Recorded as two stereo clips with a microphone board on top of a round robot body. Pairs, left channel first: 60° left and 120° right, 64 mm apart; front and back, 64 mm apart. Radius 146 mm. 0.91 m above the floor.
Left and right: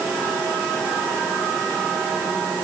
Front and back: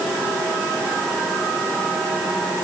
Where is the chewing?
No chewing in this recording.